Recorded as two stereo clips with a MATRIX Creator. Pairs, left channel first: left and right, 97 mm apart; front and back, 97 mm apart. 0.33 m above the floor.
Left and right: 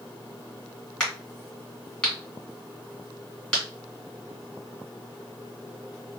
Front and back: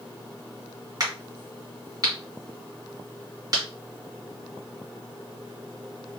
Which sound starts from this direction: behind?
A crack, at 1.0 s.